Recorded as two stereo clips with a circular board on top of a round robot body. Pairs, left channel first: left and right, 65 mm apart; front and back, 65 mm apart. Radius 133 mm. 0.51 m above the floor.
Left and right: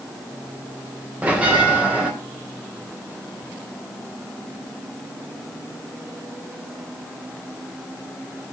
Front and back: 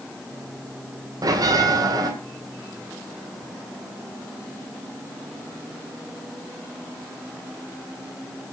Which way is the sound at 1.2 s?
160° right.